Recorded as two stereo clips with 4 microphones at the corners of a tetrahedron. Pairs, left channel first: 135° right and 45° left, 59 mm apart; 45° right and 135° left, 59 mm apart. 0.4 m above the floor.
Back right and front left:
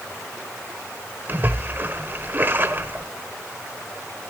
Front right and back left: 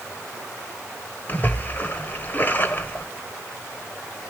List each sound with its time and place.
1.3 s a splash: 5° left, 1.2 m